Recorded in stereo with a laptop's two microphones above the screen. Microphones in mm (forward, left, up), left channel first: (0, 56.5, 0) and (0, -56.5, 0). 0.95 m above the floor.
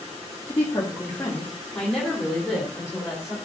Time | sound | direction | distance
0.5 | a woman speaking | 35° left (ahead or behind) | 1.7 m